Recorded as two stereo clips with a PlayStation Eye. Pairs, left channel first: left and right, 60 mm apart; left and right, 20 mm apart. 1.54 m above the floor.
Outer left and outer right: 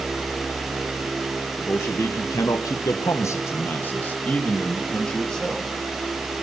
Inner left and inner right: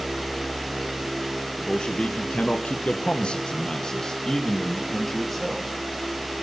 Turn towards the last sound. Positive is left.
turn(degrees=10)  # may be behind; listen again after turning